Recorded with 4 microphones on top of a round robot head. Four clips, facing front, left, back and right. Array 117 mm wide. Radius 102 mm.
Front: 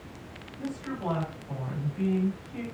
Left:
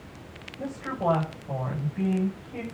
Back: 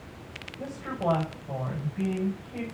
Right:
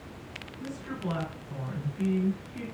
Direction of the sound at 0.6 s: 115° left.